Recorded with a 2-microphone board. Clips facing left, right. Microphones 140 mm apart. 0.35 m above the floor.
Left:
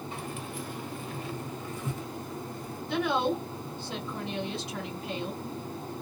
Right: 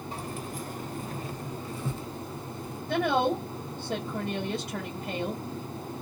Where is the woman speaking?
50° right (ahead or behind), 1.5 m.